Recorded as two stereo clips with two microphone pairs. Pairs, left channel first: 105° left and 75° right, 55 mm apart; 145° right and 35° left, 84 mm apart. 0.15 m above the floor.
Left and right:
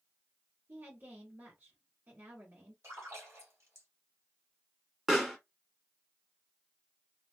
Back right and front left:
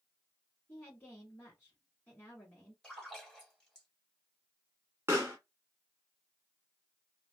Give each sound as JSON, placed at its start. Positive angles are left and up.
{"t": 0.7, "sound": "a woman speaking", "azimuth_deg": -85, "distance_m": 1.4}
{"t": 2.8, "sound": "a splash", "azimuth_deg": -65, "distance_m": 1.6}
{"t": 5.1, "sound": "a pop", "azimuth_deg": 5, "distance_m": 1.0}